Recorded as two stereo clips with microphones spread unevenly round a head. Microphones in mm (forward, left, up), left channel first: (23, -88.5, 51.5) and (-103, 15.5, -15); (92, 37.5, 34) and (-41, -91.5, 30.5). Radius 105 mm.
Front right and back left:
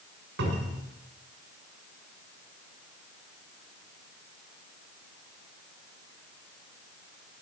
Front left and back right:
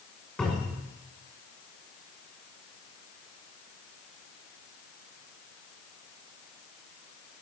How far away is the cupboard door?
About 6.5 m.